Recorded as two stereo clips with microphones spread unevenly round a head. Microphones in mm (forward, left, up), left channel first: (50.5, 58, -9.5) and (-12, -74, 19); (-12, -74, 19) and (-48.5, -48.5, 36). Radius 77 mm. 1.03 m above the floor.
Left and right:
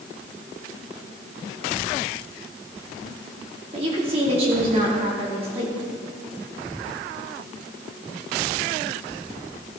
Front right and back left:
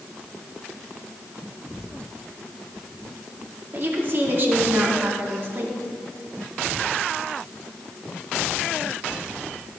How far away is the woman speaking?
About 3 m.